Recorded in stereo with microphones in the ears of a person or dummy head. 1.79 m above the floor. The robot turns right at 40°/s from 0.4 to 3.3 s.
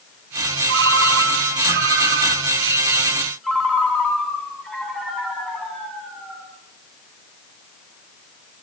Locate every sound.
0.7 s a ringtone: 105° right, 9 m; by 6.4 s straight ahead, 9 m